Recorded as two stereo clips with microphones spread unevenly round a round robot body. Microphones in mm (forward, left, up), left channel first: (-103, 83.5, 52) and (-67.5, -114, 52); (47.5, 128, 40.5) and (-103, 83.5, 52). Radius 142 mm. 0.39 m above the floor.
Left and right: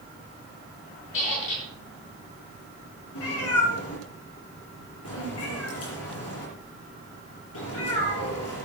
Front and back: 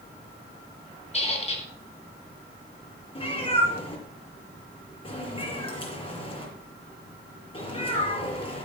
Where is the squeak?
65° left, 3.5 m.